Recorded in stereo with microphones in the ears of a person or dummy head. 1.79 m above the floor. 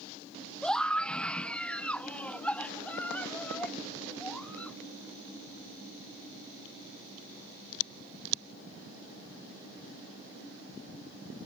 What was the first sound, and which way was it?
A scream, 5° left (ahead or behind).